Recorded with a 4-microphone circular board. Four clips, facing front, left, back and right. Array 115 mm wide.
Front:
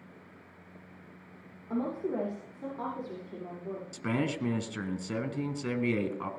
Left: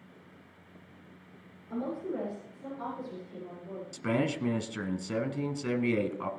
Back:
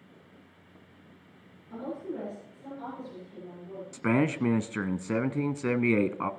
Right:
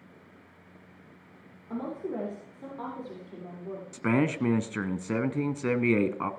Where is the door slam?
I don't hear a door slam.